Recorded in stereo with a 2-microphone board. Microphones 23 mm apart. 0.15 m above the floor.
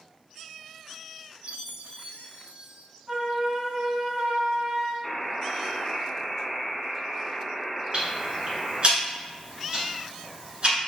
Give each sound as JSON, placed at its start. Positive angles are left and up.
{"t": 1.4, "sound": "a chime", "side_deg": -65, "distance_m": 0.5}
{"t": 3.1, "sound": "a flute", "side_deg": -45, "distance_m": 1.8}
{"t": 5.0, "sound": "a buzzer", "side_deg": 15, "distance_m": 0.6}
{"t": 7.9, "sound": "ticking", "side_deg": -45, "distance_m": 1.5}